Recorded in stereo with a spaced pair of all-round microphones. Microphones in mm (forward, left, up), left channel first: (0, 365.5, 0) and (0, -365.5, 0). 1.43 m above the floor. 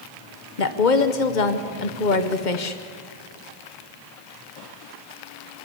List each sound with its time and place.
0.6 s a woman speaking: 85° left, 1.1 m